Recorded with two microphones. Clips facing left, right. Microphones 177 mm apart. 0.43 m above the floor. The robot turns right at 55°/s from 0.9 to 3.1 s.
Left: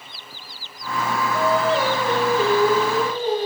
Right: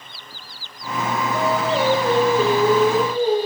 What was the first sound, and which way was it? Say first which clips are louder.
Singing: left 1 dB; 120° right.